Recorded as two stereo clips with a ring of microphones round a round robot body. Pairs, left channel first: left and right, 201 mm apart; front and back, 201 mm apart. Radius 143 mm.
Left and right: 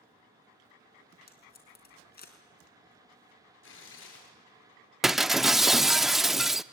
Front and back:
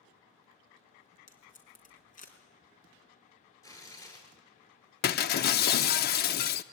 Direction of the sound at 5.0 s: Straight ahead.